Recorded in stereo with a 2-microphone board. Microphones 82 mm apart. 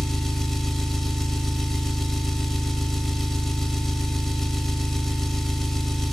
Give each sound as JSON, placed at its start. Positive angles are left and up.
{"t": 0.0, "sound": "an engine running", "side_deg": 5, "distance_m": 0.8}